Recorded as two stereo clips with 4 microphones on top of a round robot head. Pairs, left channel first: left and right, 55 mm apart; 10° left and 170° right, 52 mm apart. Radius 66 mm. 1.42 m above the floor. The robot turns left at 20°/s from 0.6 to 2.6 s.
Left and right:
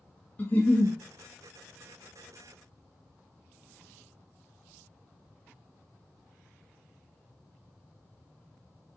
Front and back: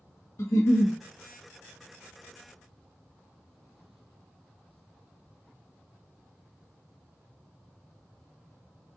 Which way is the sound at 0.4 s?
30° left.